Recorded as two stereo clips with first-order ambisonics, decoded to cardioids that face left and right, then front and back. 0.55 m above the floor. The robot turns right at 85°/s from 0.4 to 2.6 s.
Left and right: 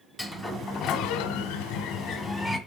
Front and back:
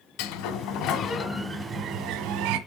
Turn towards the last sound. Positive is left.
turn(degrees=-175)